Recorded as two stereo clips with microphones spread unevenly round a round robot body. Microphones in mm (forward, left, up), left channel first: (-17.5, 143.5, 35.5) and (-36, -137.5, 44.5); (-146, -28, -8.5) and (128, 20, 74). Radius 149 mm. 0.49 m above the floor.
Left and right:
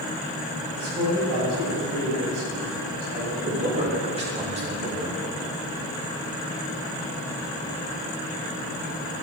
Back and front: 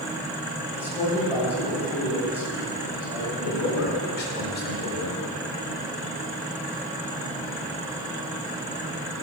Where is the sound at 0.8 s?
75° right, 3 m.